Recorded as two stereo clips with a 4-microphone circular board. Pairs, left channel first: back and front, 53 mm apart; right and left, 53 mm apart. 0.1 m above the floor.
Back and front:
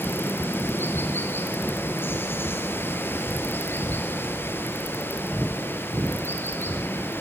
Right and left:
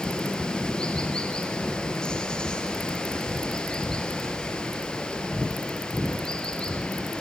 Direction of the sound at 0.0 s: 160° right.